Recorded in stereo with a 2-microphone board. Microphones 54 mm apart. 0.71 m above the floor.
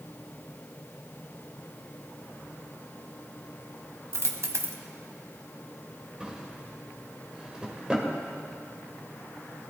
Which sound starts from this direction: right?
A dropped coin, at 4.1 s.